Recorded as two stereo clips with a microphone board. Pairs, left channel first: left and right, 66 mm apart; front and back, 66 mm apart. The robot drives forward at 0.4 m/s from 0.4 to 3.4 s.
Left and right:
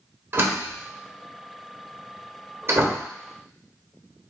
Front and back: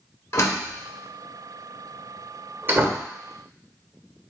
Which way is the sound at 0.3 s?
40° right.